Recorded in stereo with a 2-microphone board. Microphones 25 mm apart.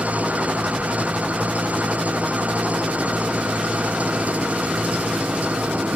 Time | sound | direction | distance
0.0 | an engine running | 70° right (ahead or behind) | ?